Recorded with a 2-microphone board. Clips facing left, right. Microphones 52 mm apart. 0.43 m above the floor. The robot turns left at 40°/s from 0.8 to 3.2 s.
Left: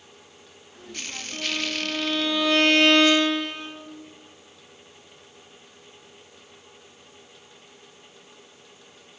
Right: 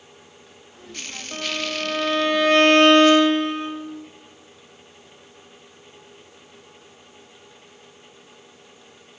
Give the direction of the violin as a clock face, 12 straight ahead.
2 o'clock.